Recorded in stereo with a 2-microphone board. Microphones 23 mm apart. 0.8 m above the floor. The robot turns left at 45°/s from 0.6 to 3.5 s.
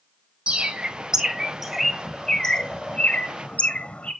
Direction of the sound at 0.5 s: 50° right (ahead or behind).